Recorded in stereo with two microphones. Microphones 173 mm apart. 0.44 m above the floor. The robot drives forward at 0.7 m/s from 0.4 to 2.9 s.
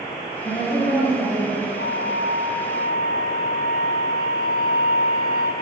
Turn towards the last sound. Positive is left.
turn(degrees=75)  # may be behind; listen again after turning